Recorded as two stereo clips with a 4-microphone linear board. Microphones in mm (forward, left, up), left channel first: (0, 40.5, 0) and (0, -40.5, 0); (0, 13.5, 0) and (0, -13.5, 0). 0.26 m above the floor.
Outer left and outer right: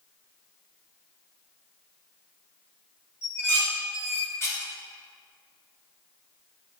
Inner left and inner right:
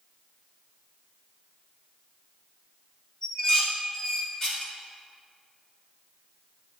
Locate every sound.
3.2 s dishes clattering: 30° left (ahead or behind), 1.6 m